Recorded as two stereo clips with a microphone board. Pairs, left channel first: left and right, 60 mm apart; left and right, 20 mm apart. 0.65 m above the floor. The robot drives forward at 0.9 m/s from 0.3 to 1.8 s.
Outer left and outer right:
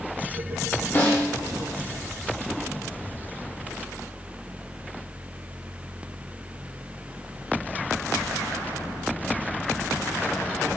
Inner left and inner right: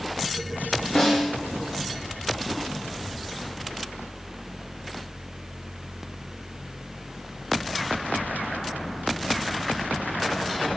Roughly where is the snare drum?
Left.